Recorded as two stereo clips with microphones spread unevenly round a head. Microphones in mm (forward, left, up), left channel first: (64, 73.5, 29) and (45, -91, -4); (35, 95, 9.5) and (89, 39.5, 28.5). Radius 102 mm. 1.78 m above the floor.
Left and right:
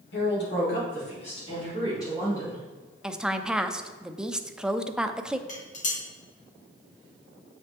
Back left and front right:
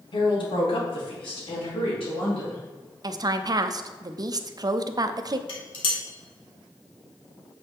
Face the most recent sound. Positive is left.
turn(degrees=125)